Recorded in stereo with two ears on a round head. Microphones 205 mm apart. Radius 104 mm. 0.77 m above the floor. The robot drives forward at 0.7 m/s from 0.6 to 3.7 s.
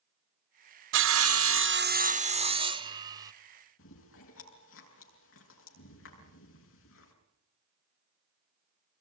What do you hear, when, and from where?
0.9 s sawing: 50° right (ahead or behind), 0.5 m; by 3.3 s 15° right (ahead or behind), 1.5 m
3.8 s chewing: 65° left (ahead or behind), 7 m